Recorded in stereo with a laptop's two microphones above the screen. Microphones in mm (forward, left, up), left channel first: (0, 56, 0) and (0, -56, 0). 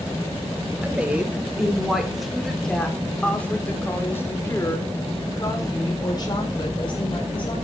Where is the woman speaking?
15° right (ahead or behind), 4.5 m; by 7.5 s 45° left (ahead or behind), 5 m.